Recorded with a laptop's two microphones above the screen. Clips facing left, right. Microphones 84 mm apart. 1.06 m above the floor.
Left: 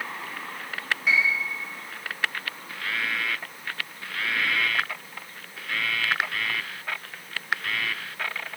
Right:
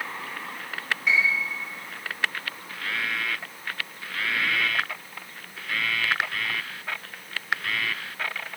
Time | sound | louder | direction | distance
1.1 | a piano | even | centre (ahead or behind) | 1.5 m